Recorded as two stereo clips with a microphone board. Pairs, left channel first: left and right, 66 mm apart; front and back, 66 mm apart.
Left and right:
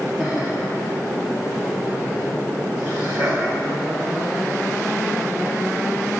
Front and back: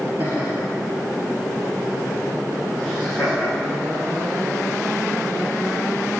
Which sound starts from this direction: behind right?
Laughter, at 0.2 s.